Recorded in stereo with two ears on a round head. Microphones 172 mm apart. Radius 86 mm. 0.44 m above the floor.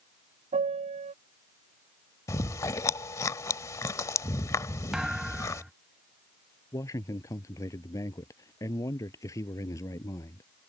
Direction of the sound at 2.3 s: 15° left (ahead or behind).